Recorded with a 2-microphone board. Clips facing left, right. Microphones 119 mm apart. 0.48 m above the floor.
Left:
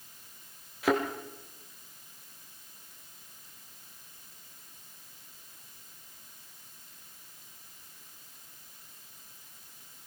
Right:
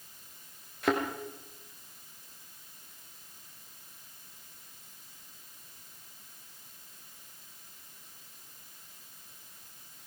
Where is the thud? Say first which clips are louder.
Left 2 dB; centre (ahead or behind), 4 m.